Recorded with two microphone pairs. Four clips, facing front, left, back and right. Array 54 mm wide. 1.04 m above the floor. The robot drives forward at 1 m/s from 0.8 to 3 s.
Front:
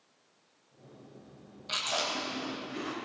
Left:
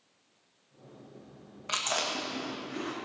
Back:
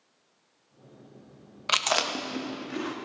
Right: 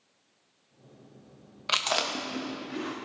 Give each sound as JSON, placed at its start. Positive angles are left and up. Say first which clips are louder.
{"t": 1.7, "sound": "chewing", "louder": "right 3 dB, back 7 dB", "azimuth_deg": -160, "distance_m": 0.8}